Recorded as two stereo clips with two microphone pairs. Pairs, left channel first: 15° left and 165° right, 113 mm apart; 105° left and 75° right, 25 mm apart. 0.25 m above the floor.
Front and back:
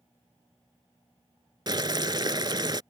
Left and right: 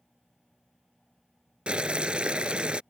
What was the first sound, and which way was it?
Boiling, 115° right.